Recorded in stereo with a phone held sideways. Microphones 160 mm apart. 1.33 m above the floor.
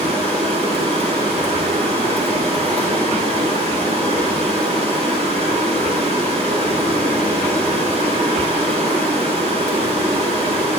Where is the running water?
40° right (ahead or behind), 2 m.